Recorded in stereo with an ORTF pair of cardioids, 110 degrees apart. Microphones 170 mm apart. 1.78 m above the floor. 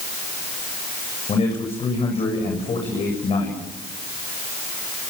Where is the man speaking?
40° left, 8.5 m.